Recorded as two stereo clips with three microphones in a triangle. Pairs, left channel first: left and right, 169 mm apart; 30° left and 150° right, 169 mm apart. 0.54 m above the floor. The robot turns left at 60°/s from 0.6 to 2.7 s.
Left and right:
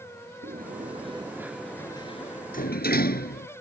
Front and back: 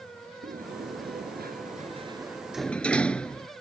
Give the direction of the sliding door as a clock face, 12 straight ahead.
4 o'clock.